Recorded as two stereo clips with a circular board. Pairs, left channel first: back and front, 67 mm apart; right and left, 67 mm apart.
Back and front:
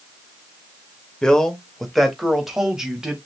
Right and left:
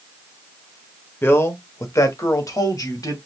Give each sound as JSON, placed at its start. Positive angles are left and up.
{"t": 1.2, "sound": "a man speaking", "azimuth_deg": -110, "distance_m": 1.0}